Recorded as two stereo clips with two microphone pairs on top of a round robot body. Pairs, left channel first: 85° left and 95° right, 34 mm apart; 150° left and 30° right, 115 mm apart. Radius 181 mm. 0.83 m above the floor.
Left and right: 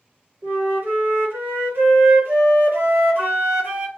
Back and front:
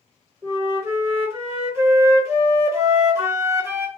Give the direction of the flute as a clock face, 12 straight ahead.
3 o'clock.